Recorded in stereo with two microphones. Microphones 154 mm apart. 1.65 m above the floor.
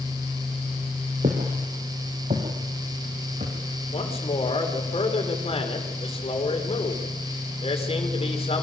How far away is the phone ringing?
I don't hear a phone ringing.